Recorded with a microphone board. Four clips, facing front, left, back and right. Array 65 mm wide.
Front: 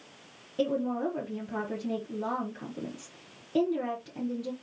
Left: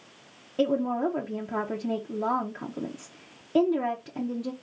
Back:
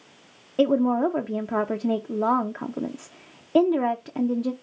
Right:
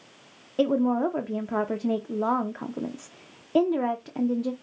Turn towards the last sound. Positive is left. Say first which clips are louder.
# right 2 dB, back 9 dB
turn(degrees=-160)